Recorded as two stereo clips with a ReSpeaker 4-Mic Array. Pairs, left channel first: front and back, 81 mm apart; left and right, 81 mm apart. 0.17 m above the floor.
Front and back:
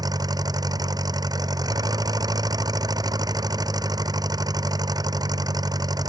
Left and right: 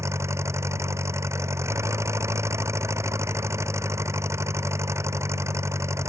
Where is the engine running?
145° right.